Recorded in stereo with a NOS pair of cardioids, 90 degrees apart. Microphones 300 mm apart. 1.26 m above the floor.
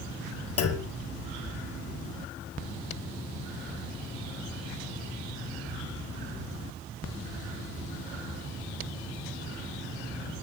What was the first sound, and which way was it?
A clunk, 50° left.